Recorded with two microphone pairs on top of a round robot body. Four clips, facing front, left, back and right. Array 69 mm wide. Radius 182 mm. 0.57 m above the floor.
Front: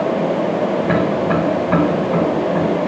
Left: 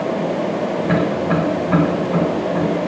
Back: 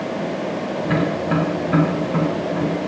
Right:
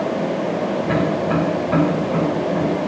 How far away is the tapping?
About 7.5 m.